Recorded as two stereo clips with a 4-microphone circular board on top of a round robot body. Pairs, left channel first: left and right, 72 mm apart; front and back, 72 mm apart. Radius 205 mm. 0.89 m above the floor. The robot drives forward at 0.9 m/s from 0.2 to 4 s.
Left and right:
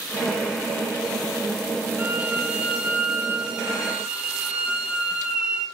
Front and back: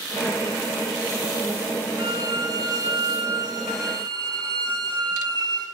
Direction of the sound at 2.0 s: 160° right.